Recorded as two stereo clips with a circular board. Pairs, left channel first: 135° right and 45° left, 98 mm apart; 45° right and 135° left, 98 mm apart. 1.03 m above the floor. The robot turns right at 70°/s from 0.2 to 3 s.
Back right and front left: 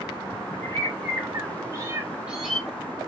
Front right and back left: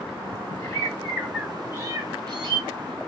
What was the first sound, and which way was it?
A bird, 5° left.